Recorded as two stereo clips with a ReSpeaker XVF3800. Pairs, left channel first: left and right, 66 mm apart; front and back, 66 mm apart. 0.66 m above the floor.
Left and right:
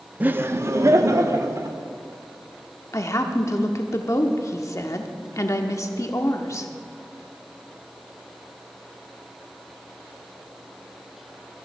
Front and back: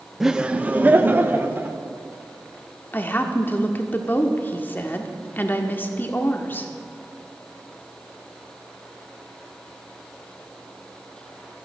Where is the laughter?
100° right, 0.5 m; by 1.8 s 125° right, 1.6 m.